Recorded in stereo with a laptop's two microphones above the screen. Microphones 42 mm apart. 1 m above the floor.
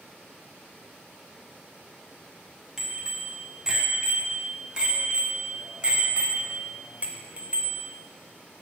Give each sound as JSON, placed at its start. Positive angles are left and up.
{"t": 2.8, "sound": "a bicycle bell", "side_deg": -10, "distance_m": 5.5}